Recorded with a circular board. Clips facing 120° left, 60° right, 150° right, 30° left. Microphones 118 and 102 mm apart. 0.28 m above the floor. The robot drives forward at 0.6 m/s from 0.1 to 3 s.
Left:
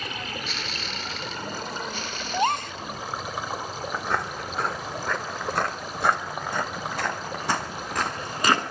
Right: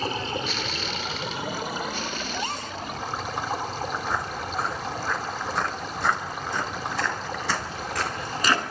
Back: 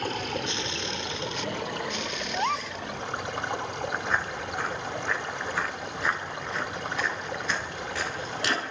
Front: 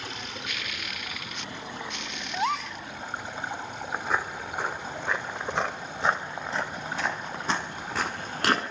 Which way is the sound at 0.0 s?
115° right.